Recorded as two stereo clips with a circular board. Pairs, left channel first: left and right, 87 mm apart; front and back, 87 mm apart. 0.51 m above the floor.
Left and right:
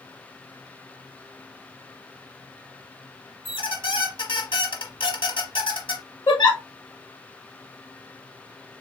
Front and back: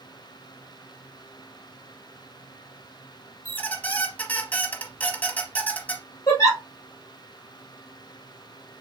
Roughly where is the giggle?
Ahead left.